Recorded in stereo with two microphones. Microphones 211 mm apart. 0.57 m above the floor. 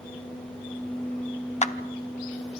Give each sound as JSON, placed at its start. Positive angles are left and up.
{"t": 1.6, "sound": "a clap", "side_deg": 35, "distance_m": 0.8}